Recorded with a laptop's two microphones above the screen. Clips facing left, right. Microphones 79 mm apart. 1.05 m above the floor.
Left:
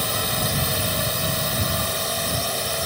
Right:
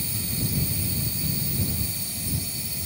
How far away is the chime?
No chime in this recording.